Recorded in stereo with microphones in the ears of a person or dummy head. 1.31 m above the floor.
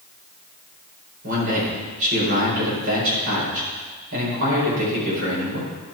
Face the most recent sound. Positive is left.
turn(degrees=-70)  # may be behind; listen again after turning